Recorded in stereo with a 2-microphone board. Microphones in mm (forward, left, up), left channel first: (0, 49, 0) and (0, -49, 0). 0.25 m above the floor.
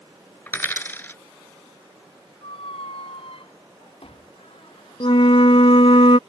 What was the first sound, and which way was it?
A dropped coin, 20° left (ahead or behind).